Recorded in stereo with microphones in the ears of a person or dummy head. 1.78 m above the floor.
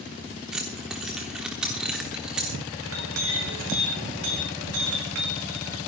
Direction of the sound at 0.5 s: Centre (ahead or behind).